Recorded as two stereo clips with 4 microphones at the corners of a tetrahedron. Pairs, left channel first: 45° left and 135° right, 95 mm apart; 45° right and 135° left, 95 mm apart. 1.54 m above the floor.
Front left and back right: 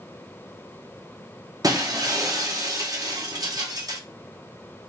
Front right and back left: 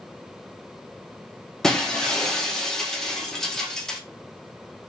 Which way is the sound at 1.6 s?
125° right.